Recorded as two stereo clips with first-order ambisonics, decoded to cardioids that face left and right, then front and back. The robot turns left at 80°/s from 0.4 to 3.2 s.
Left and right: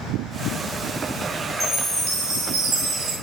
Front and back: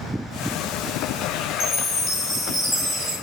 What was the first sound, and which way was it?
A chime, 15° right.